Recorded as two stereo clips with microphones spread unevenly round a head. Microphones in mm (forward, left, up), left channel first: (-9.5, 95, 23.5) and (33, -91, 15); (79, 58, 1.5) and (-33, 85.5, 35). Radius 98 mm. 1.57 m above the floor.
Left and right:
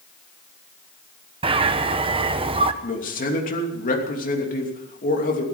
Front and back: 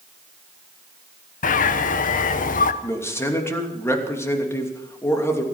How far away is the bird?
About 0.8 m.